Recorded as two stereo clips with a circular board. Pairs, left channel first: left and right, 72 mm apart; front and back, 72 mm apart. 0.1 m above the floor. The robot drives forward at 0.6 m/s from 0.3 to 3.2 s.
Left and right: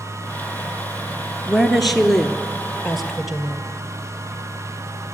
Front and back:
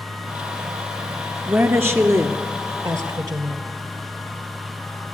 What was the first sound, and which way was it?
A woman speaking, straight behind.